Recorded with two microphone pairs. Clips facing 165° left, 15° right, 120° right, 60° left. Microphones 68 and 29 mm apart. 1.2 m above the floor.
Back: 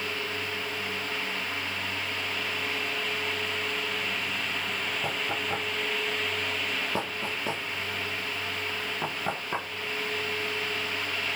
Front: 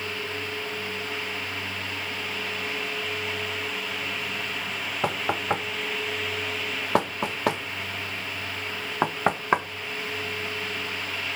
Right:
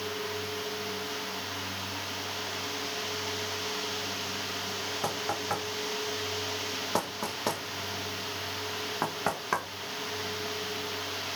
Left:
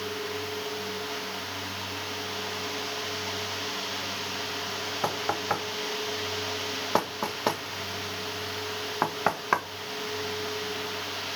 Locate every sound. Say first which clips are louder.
5.0 s knocking: front 10 dB, left 5 dB; 10° right, 1.3 m